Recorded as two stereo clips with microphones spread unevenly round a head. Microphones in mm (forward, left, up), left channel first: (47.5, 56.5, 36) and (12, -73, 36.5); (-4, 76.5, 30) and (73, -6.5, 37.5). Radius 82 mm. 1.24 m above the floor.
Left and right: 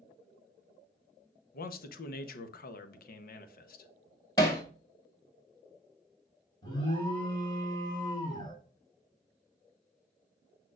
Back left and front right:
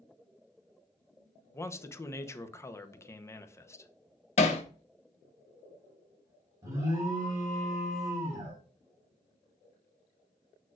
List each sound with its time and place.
1.5 s a man speaking: 65° left, 0.9 m
4.4 s hammering: 135° left, 0.9 m
6.6 s an alarm: 15° left, 3.5 m